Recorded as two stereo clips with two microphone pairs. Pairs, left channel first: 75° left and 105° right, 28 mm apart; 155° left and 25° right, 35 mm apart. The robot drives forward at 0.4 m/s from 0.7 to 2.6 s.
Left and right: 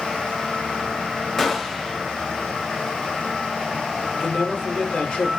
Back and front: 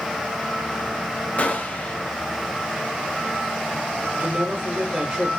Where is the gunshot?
150° left, 0.6 m; by 2.0 s 160° left, 0.8 m.